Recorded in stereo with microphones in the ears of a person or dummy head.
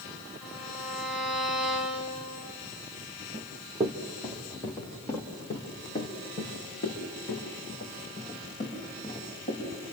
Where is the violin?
5° left (ahead or behind), 4.5 m.